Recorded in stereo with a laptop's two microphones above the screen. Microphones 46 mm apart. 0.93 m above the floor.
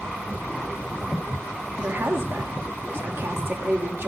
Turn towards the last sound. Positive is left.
turn(degrees=-60)  # may be behind; listen again after turning